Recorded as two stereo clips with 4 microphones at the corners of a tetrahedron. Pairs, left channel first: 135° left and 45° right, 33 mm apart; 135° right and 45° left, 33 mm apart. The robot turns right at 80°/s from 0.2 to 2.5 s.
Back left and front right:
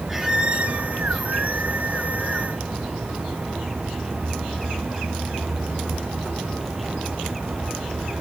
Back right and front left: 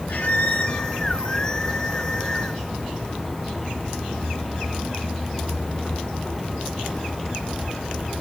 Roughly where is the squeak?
Behind right.